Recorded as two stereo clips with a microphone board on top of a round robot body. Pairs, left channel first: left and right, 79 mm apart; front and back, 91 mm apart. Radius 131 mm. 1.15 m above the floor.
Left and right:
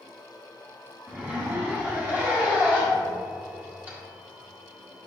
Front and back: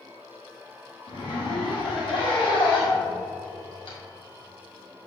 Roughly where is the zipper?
Ahead right.